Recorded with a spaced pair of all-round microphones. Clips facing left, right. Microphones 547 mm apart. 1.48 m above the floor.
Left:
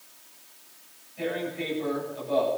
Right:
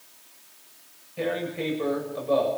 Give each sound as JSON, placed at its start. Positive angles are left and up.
{"t": 1.2, "sound": "tearing paper", "side_deg": -85, "distance_m": 7.5}